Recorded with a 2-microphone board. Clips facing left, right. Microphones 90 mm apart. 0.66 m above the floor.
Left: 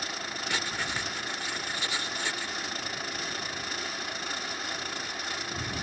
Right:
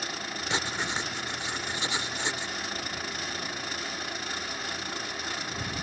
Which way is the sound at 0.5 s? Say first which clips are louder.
Right 3 dB; 25° right (ahead or behind).